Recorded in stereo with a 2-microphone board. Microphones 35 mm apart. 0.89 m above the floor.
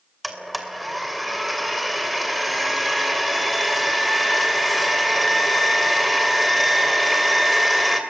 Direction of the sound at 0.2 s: Centre (ahead or behind).